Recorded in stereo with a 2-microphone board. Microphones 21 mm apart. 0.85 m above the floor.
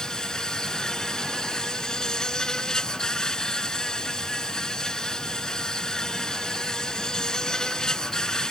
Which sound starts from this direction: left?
An insect, at 0.0 s.